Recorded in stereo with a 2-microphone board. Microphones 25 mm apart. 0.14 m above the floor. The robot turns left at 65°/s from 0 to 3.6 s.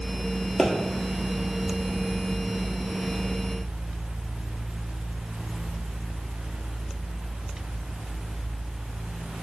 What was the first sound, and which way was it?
A pop, 25° left (ahead or behind).